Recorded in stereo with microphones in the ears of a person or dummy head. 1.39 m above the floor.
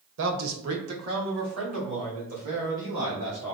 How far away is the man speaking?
About 1.1 m.